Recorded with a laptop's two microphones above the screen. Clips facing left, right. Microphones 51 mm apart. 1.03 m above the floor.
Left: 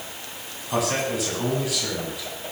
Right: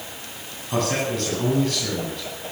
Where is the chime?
I don't hear a chime.